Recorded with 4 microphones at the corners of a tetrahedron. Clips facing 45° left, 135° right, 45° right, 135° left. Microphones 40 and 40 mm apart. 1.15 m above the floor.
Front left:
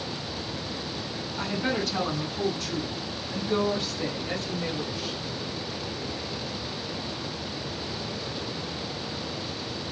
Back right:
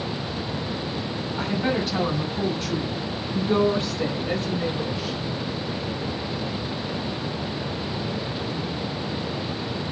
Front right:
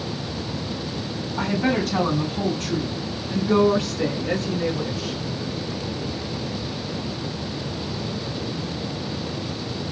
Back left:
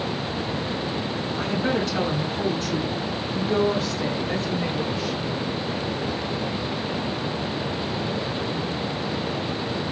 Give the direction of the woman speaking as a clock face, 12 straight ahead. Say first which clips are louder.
Back right 3 dB, front right 3 dB; 2 o'clock.